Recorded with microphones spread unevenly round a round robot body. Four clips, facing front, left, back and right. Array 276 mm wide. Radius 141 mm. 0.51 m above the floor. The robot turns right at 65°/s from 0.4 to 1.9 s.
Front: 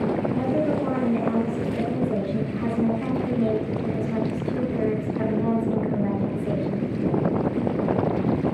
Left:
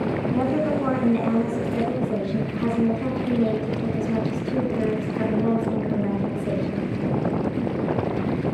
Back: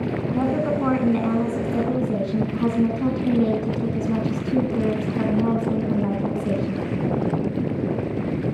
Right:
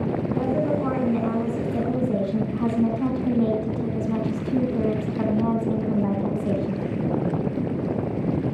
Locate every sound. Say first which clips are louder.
0.3 s a woman speaking: left 1 dB, back 1 dB; 120° left, 4 m; by 6.8 s 140° right, 4 m